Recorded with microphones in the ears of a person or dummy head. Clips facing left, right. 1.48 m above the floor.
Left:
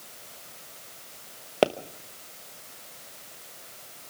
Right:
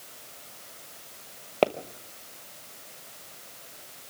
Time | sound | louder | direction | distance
1.6 | a pop | left 1 dB | 5° left (ahead or behind) | 0.9 m